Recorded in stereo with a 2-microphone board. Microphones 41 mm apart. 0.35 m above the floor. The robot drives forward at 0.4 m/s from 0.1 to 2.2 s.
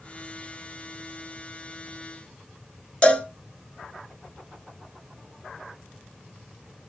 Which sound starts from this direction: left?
A cowbell, at 3.0 s.